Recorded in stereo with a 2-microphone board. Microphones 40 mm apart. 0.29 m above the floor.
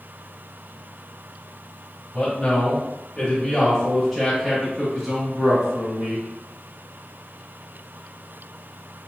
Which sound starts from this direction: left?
A man speaking, at 2.1 s.